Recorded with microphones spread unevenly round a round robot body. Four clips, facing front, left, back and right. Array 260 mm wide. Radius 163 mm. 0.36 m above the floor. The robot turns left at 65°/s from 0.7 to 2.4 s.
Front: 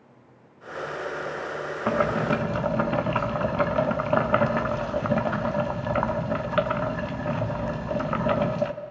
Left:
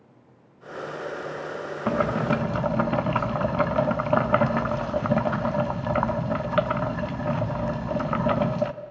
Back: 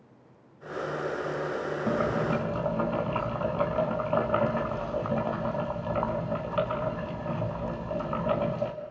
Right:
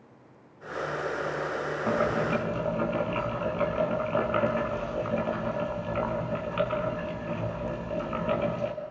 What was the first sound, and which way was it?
Boiling, 130° left.